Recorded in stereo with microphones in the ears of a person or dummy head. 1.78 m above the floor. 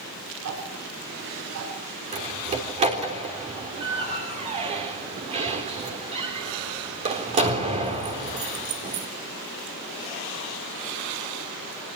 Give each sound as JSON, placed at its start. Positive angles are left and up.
{"t": 0.4, "sound": "ticking", "side_deg": -75, "distance_m": 7.5}
{"t": 2.1, "sound": "a door slam", "side_deg": -30, "distance_m": 3.5}